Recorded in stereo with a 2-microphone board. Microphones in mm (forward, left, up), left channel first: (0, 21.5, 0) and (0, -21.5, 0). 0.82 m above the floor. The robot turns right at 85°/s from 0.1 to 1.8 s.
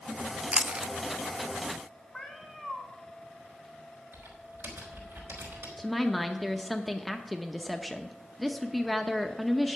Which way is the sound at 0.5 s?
25° right (ahead or behind).